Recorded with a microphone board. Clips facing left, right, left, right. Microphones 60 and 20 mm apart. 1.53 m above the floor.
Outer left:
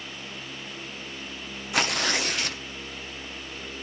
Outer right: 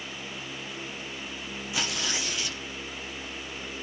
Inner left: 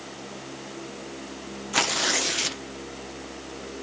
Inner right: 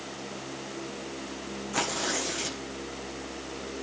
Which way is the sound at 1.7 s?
60° left (ahead or behind).